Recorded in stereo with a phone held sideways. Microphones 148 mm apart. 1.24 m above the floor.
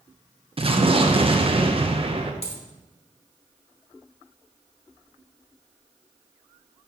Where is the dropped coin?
45° left (ahead or behind), 1.5 m.